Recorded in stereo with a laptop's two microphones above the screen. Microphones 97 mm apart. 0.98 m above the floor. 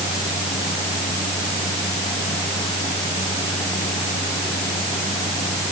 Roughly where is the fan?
Left.